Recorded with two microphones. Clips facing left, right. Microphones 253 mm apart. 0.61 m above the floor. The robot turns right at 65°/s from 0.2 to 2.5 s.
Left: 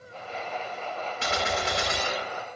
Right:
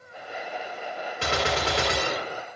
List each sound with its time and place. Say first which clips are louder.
1.2 s a gunshot: right 4 dB; 120° right, 0.6 m; by 2.4 s 40° right, 0.6 m